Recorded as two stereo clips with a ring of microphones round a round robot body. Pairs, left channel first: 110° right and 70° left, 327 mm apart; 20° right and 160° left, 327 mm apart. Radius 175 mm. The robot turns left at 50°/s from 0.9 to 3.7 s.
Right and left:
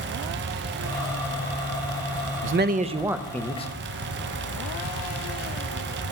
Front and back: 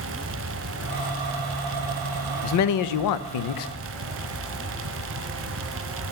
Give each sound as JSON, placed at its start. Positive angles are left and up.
{"t": 2.4, "sound": "a man speaking", "azimuth_deg": 20, "distance_m": 0.6}